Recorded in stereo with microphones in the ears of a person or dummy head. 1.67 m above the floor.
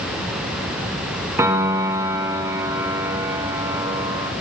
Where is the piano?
15° right (ahead or behind), 2.5 m.